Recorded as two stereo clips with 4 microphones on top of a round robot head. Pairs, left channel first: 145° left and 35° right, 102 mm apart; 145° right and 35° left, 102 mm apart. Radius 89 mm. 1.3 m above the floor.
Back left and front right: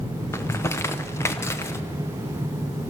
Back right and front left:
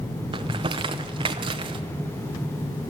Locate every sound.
0.3 s crumpling: 80° left, 0.9 m